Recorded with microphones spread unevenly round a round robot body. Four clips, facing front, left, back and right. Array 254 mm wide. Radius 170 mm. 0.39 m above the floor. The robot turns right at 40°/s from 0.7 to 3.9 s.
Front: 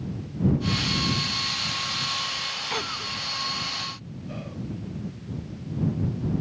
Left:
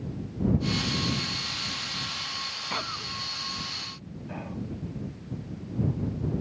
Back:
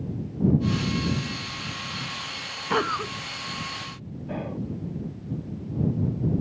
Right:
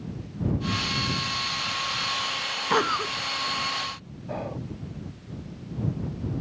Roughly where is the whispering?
Behind.